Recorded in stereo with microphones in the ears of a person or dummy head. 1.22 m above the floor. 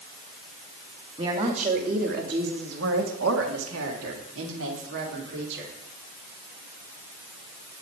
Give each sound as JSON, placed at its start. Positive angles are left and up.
{"t": 1.2, "sound": "a woman speaking", "side_deg": -25, "distance_m": 2.5}